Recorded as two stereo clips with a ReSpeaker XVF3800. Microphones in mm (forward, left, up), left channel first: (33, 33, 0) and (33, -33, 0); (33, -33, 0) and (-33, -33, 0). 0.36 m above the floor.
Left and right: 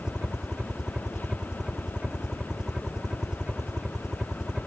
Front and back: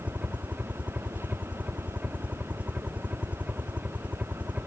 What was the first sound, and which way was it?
A helicopter, 155° right.